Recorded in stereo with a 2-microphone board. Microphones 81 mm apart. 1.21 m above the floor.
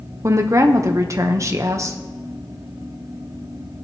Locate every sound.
0.2 s a woman speaking: 40° right (ahead or behind), 1.1 m